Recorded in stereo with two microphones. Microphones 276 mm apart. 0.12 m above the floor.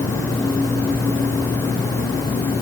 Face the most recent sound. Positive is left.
No sound to turn to.